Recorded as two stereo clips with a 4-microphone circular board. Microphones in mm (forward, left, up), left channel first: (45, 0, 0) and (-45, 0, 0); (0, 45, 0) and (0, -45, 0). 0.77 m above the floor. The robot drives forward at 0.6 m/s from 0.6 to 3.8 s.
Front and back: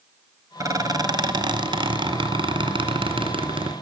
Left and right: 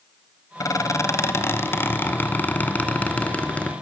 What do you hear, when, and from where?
0.6 s a squeak: 135° left, 1.0 m; by 3.7 s 165° left, 2.5 m